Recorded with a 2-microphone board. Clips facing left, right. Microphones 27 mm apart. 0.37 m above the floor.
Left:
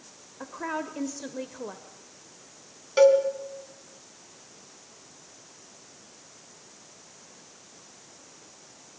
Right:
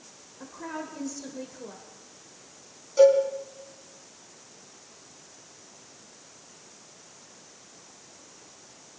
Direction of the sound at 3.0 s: 55° left (ahead or behind).